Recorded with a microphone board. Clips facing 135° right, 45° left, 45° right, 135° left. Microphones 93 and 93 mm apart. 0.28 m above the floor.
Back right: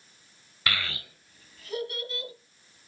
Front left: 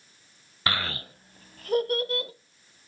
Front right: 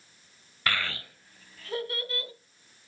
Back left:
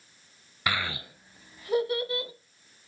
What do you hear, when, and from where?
0.7 s a child speaking: 70° left, 0.6 m; by 2.3 s 65° left, 1.4 m